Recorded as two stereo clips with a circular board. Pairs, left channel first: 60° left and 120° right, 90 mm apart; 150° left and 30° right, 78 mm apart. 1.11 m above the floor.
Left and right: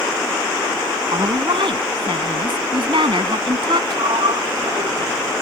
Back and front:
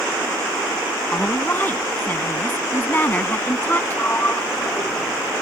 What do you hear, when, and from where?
1.1 s a woman speaking: 145° right
3.9 s a sliding door: 145° right